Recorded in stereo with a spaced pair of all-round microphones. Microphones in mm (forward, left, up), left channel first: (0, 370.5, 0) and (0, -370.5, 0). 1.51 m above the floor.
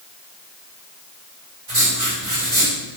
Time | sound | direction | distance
1.7 | writing | 60° right (ahead or behind) | 4 m